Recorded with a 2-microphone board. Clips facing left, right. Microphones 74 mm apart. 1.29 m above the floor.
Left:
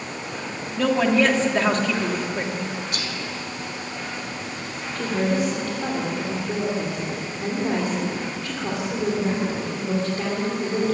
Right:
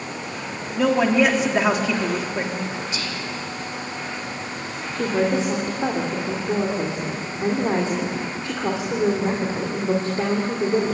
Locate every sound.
0.8 s a woman speaking: 10° right (ahead or behind), 3 m
2.9 s whispering: 60° left (ahead or behind), 5.5 m
5.0 s a woman speaking: 30° right (ahead or behind), 3.5 m